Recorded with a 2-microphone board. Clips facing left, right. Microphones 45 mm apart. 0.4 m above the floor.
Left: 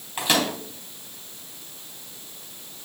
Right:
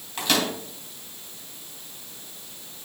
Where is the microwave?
15° left (ahead or behind), 3 m.